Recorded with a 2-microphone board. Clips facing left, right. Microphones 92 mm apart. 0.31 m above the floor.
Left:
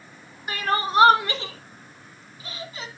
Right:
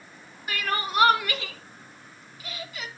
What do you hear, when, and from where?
0.5 s crying: 25° left (ahead or behind), 1.2 m